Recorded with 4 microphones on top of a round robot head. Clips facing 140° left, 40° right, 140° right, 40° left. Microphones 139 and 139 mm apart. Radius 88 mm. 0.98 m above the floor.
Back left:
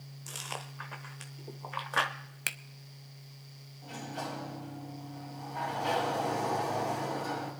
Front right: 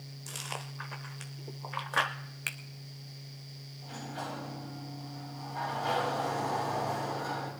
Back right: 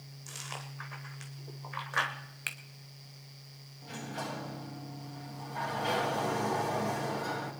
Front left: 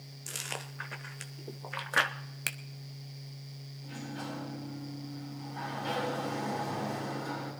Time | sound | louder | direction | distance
0.3 | chewing | even, front left 3 dB | 50° left | 0.8 m
2.5 | a finger snap | back left 3 dB, front left 4 dB | 90° left | 0.8 m
3.8 | a sliding door | back left 1 dB, back right 1 dB | 145° right | 6.5 m